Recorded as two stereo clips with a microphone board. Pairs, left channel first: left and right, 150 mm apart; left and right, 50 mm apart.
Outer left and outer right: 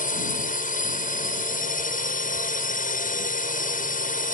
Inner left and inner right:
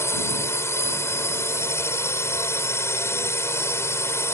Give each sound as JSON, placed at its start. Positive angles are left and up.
{"t": 0.0, "sound": "a drone", "side_deg": 65}